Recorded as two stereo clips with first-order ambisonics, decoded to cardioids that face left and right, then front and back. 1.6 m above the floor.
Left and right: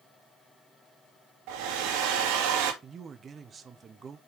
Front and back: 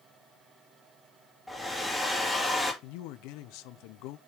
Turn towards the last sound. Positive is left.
turn(degrees=-20)